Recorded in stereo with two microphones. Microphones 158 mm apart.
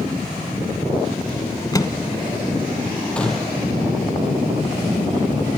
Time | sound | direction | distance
1.7 | a microwave | 25° left (ahead or behind) | 1.1 m
3.2 | a gunshot | 5° left (ahead or behind) | 2.5 m